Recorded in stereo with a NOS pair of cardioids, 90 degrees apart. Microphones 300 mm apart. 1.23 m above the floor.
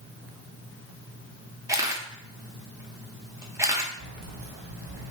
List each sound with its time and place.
1.7 s a camera shutter: 10° right, 0.7 m
4.0 s keys jangling: 65° right, 0.9 m